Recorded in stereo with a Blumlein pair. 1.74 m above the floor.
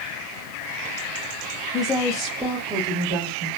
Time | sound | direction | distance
1.7 | a woman speaking | 15° left | 1.0 m